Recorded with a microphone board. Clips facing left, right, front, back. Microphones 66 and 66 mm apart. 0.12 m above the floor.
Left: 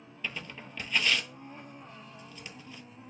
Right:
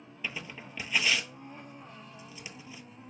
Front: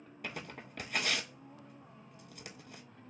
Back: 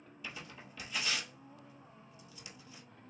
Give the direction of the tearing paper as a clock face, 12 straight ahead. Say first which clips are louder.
Even, front 4 dB; 12 o'clock.